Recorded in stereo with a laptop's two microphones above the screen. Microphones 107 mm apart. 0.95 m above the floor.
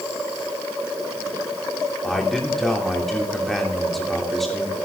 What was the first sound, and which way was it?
A man speaking, centre (ahead or behind).